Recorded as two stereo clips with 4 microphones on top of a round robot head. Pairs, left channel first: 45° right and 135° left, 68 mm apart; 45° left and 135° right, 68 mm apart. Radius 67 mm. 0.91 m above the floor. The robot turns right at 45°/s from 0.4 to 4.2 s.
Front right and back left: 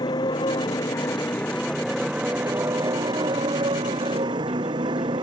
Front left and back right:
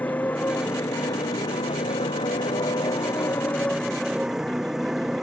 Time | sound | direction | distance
0.0 | a motorcycle | 20° right | ?